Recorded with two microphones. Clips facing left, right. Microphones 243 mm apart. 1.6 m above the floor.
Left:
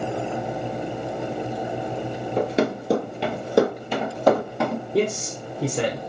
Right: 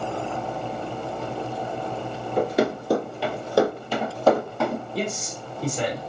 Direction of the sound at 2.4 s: 20° left (ahead or behind).